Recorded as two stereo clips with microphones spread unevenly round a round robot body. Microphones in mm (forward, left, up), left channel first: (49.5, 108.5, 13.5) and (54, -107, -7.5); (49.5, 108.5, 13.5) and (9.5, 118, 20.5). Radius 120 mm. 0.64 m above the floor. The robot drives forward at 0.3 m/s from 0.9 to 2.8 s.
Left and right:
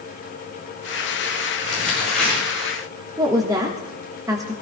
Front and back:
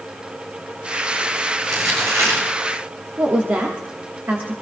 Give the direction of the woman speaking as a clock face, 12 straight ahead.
5 o'clock.